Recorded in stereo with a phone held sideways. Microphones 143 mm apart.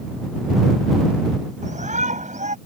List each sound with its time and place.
1.6 s a shout: 60° right (ahead or behind)